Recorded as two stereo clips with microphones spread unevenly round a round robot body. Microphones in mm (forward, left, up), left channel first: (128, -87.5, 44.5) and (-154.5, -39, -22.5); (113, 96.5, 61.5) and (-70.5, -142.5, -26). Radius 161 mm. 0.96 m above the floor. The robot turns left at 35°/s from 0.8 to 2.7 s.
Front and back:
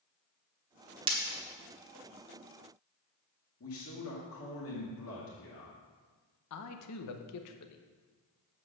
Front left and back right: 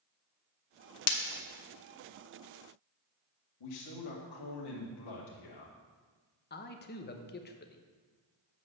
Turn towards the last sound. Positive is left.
turn(degrees=-10)